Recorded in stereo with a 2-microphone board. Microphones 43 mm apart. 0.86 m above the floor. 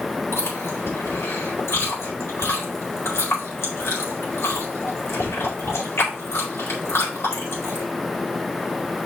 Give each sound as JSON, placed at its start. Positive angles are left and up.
{"t": 0.3, "sound": "chewing", "side_deg": 75, "distance_m": 4.0}